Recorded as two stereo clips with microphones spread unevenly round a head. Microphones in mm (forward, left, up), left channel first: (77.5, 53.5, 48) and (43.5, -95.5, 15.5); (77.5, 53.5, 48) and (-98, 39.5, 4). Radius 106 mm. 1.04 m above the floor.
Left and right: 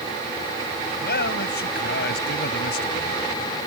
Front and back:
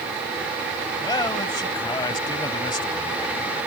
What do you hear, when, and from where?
1.0 s a man speaking: 70° left